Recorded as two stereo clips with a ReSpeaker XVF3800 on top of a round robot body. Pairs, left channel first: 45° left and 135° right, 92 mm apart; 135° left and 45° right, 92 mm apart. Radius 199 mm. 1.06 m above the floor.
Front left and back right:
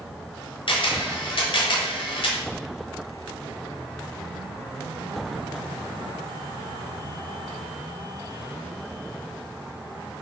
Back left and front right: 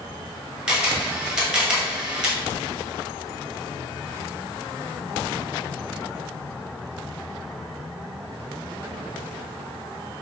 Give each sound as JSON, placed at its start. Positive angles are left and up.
{"t": 0.7, "sound": "a camera shutter", "azimuth_deg": 35, "distance_m": 1.3}